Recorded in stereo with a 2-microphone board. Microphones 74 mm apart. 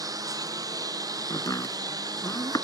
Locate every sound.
0.0 s a lawn mower: 55° right (ahead or behind); by 2.6 s 60° right (ahead or behind)
1.3 s chopping: 50° left (ahead or behind)